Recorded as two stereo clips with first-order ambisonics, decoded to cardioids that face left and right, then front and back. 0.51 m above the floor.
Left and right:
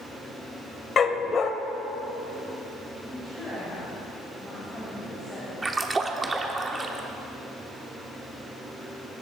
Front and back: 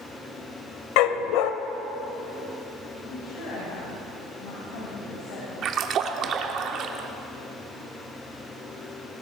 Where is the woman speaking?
10° left, 3.5 m.